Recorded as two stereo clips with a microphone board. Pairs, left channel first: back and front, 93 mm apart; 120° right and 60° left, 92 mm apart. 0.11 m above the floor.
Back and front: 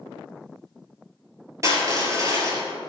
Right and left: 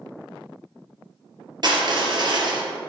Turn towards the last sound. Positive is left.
turn(degrees=45)